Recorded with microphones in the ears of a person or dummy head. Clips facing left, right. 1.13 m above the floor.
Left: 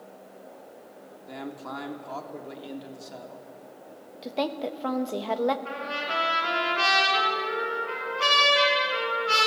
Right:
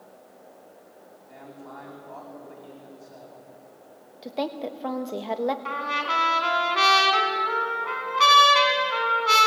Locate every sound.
1.3 s a man speaking: 85° left, 3 m
4.2 s a woman speaking: centre (ahead or behind), 1.2 m
5.7 s a trumpet: 80° right, 3.5 m